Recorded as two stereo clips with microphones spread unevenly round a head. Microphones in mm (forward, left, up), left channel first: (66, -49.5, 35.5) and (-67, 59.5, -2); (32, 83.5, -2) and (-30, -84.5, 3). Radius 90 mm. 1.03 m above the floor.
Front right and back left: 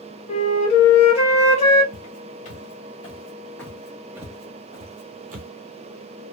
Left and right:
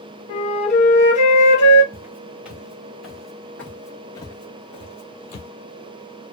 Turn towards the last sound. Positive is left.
turn(degrees=110)